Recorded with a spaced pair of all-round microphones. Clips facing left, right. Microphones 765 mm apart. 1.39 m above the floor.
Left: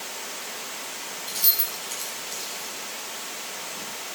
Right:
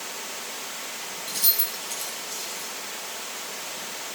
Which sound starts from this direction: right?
Keys jangling, at 1.3 s.